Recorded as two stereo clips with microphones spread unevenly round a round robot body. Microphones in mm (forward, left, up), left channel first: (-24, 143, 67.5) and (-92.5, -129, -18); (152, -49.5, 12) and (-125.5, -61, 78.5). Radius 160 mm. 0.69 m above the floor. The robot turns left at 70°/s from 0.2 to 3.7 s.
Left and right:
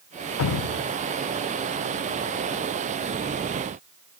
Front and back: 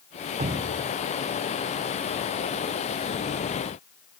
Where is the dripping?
115° left, 0.6 m; by 0.9 s 80° left, 0.6 m.